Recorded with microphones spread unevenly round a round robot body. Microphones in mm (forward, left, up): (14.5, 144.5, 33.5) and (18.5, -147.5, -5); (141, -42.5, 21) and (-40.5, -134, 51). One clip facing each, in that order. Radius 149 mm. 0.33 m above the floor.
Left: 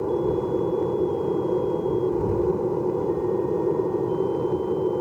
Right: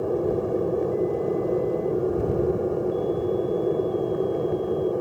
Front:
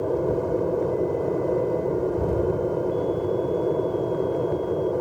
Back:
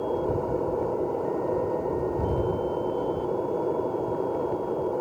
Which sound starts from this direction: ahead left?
An aircraft, at 0.0 s.